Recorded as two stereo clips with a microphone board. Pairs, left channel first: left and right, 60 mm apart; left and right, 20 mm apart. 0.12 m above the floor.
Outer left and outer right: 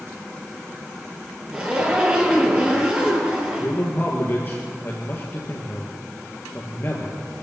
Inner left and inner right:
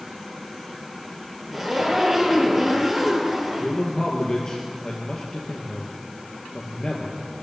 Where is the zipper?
20° right (ahead or behind), 3 m.